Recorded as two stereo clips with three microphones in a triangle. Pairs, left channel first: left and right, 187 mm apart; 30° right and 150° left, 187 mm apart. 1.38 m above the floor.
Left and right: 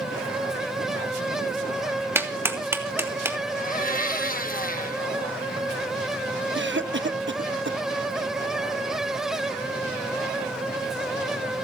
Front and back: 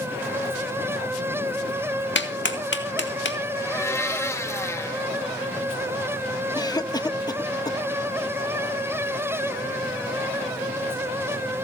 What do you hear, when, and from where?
2.1 s a clap: 10° right, 2.0 m
3.6 s a blender: 45° left, 1.2 m
6.5 s a cough: 100° right, 1.0 m